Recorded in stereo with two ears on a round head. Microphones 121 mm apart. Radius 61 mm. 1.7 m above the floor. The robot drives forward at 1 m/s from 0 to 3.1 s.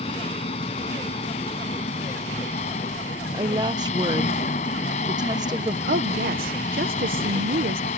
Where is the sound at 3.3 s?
30° right (ahead or behind).